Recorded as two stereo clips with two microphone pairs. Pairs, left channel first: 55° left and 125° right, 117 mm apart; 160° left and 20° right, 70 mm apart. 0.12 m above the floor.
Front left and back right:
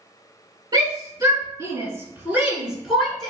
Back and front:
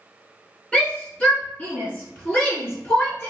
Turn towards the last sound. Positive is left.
turn(degrees=140)